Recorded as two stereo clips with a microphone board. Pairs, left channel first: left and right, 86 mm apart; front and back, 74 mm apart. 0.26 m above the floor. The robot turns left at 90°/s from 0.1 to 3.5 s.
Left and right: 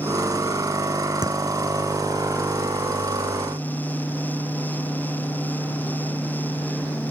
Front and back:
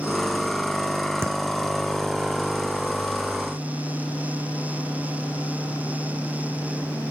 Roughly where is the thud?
Behind right.